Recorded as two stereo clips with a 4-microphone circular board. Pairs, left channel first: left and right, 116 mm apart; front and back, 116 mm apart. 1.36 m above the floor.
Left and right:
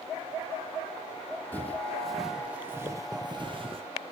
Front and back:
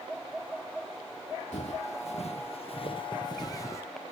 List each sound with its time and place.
1.5 s footsteps: 15° left, 3 m; by 3.8 s 65° right, 2.5 m